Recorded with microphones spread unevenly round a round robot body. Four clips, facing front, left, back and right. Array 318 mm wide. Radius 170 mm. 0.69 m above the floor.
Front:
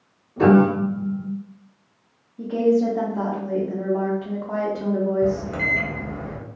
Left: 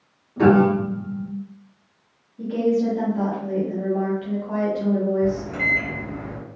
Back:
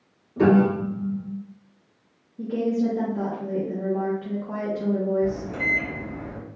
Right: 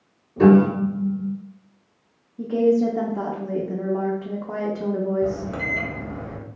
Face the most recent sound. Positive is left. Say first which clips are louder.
# left 2 dB, front 4 dB
turn(degrees=-35)